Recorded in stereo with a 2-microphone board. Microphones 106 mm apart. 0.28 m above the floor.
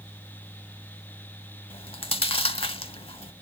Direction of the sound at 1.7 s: 60° left (ahead or behind).